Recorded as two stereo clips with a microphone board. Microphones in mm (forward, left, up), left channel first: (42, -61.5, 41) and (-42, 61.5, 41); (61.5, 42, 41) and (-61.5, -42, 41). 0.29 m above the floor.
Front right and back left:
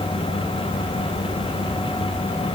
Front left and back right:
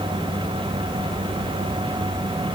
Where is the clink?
No clink in this recording.